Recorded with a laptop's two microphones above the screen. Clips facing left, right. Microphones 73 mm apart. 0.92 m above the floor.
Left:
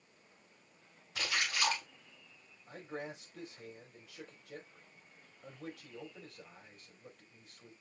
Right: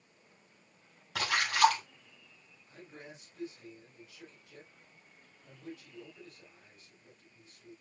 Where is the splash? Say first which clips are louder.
Right 9 dB; 85° right, 6 m.